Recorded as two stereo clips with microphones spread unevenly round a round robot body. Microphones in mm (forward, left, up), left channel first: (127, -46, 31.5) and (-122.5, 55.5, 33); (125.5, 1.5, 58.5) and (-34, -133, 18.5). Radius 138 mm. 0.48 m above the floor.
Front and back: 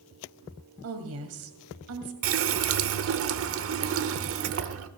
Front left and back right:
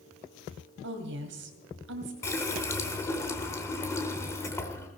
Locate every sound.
0.8 s a woman speaking: 165° right, 2.5 m
2.2 s a running tap: 125° left, 0.9 m